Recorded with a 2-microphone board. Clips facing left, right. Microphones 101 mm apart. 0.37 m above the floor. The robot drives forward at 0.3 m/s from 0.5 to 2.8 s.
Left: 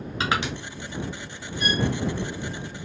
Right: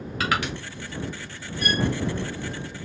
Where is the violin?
80° left, 1.6 m.